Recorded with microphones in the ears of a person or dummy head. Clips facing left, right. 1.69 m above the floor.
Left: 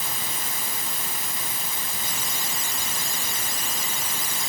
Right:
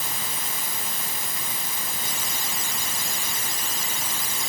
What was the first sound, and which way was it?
Only background noise.